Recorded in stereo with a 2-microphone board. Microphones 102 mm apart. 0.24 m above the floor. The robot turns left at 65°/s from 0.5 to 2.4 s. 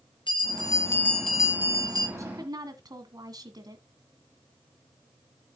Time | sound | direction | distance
0.3 | a bell | 55° left | 3 m
2.2 | a woman speaking | 30° right (ahead or behind) | 1.9 m